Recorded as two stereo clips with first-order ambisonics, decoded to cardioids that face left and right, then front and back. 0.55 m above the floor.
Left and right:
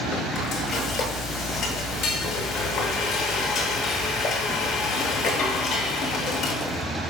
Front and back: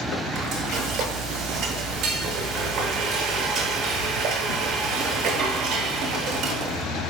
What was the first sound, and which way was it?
Frying, 135° left.